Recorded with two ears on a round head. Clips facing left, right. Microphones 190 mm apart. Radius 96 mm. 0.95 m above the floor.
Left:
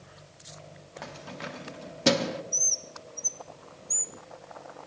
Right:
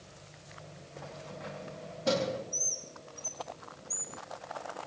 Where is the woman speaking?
No woman speaking in this recording.